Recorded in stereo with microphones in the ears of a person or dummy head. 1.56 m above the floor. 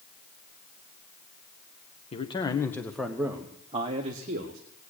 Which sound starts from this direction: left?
A man speaking, at 2.1 s.